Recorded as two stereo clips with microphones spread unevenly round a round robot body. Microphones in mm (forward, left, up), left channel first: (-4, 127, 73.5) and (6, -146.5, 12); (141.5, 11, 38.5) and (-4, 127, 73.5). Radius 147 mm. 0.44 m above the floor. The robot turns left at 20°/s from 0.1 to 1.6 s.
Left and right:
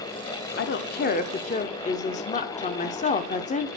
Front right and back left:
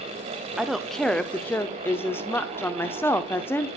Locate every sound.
0.6 s a woman speaking: 45° left, 0.9 m; by 3.7 s 25° left, 0.9 m